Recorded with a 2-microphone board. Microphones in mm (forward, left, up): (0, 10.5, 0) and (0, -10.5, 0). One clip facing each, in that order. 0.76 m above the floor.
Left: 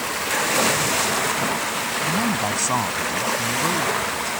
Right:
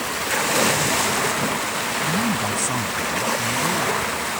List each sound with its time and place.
2.0 s a man speaking: 20° left (ahead or behind); by 4.4 s 45° left (ahead or behind)